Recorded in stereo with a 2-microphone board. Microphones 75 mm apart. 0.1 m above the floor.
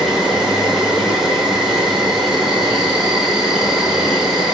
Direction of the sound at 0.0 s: 5° right (ahead or behind).